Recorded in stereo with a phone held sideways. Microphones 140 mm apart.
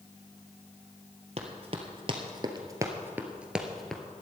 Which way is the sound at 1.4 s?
50° right (ahead or behind).